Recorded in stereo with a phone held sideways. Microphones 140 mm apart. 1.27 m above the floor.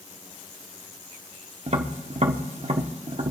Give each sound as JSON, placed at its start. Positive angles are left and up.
{"t": 1.7, "sound": "tapping", "side_deg": -50, "distance_m": 0.9}